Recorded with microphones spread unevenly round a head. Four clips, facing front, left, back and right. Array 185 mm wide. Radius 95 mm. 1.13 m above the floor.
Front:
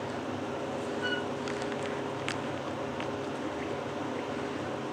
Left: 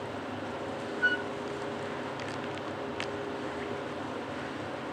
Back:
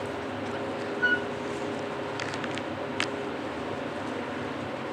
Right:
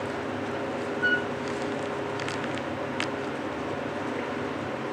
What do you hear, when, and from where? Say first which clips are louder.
1.0 s a flute: right 3 dB, back 10 dB; 155° right, 2 m